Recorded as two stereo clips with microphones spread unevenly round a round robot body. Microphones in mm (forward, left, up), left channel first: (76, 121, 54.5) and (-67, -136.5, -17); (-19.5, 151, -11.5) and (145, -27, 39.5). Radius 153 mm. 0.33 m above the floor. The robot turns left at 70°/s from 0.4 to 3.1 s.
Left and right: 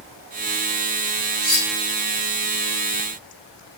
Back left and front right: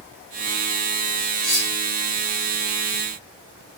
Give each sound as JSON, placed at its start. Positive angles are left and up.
{"t": 1.4, "sound": "cutlery clinking", "azimuth_deg": -155, "distance_m": 1.3}